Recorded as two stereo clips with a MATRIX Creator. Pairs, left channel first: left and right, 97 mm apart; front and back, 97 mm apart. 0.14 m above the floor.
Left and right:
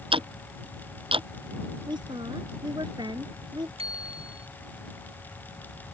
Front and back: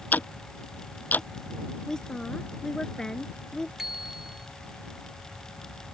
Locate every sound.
0.1 s ticking: 70° right
1.9 s a woman speaking: 80° right
3.8 s a bicycle bell: 95° right